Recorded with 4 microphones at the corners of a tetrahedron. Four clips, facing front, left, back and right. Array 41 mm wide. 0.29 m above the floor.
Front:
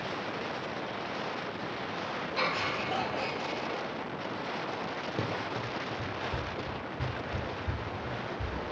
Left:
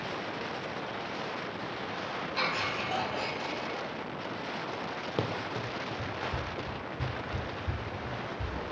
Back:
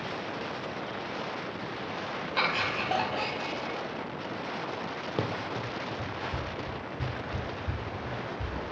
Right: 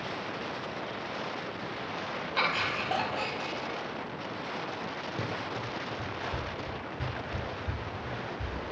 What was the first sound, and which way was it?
Laughter, 145° right.